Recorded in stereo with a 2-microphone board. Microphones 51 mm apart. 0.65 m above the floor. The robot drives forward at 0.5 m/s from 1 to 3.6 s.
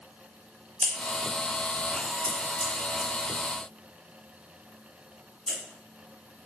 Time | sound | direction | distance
0.8 | scissors | 30° left (ahead or behind) | 0.9 m